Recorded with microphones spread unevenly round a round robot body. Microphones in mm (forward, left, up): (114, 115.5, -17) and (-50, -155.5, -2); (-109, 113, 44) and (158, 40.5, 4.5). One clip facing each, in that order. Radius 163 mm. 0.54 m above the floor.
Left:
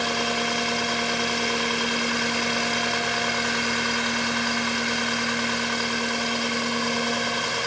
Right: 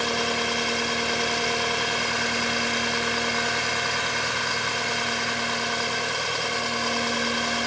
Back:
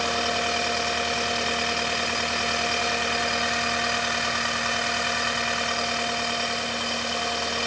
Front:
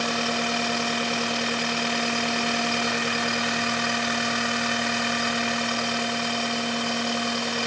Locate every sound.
Only background noise.